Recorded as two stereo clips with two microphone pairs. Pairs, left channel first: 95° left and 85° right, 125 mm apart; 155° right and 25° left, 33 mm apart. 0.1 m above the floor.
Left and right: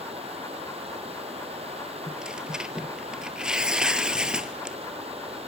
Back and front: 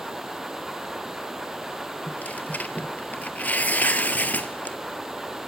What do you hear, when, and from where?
0.0 s running water: 55° right, 2 m
2.1 s tearing paper: 165° right, 0.8 m